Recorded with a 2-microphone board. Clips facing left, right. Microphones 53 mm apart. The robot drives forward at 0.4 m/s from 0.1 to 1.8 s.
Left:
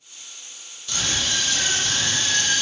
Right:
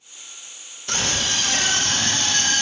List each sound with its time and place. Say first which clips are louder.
0.9 s a scream: right 2 dB; 65° right (ahead or behind), 3 m